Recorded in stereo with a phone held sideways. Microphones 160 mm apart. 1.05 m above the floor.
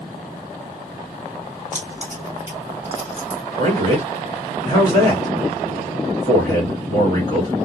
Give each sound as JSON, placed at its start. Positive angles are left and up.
{"t": 1.7, "sound": "keys jangling", "side_deg": 20, "distance_m": 1.8}
{"t": 3.6, "sound": "a man speaking", "side_deg": 25, "distance_m": 1.6}